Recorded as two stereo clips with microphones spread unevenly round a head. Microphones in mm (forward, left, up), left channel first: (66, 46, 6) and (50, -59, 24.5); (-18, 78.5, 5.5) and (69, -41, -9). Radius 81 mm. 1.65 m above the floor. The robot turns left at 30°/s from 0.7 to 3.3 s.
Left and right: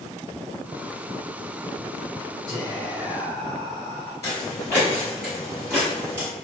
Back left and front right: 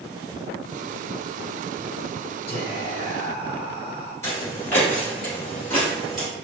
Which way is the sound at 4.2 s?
140° left.